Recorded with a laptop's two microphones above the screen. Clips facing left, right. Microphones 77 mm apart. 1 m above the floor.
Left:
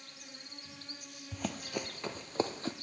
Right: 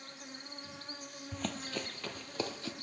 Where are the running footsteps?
Centre (ahead or behind), 1.0 m; by 2.7 s 35° left (ahead or behind), 1.2 m.